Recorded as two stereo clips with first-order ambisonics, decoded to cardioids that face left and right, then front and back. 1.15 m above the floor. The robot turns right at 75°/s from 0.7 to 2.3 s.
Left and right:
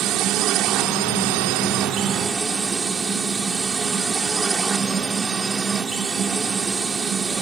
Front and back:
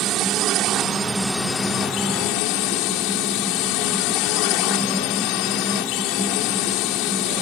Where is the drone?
135° right; by 7.4 s 15° right.